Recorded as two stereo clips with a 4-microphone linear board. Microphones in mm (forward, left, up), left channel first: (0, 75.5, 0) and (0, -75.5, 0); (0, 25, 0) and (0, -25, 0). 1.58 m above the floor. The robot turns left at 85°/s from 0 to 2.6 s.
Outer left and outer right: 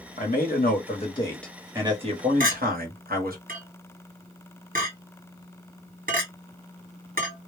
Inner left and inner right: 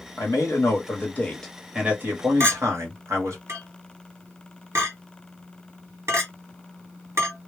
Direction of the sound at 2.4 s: 65° right (ahead or behind).